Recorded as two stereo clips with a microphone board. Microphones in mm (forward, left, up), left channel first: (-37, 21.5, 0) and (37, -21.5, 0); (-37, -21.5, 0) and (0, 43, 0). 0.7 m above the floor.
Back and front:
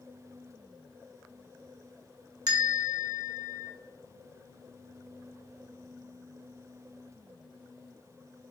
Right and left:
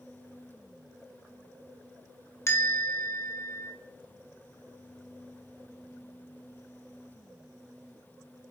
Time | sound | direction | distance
2.5 | a bell | 70° right | 0.7 m